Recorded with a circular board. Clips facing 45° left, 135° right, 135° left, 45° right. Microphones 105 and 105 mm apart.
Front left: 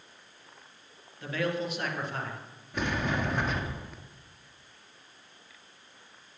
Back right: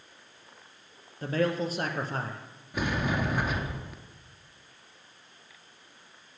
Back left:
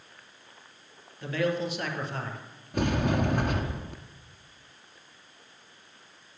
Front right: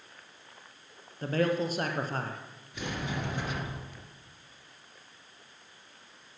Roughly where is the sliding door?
Behind left.